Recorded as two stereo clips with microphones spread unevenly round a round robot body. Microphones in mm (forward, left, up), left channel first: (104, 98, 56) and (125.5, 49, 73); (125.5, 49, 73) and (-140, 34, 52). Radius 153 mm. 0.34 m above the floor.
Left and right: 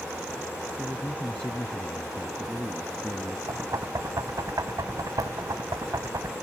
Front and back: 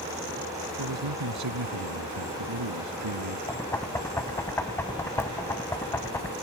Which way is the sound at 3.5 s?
80° right.